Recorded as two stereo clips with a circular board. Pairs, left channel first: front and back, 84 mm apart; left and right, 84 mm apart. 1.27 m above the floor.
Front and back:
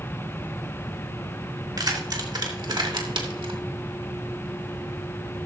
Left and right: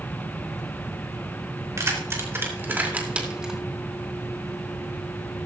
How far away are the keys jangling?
About 3 m.